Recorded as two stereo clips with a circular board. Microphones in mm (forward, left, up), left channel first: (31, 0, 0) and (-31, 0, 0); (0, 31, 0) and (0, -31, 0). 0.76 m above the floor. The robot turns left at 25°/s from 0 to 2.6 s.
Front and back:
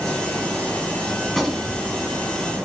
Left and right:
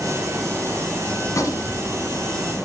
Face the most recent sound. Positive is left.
turn(degrees=60)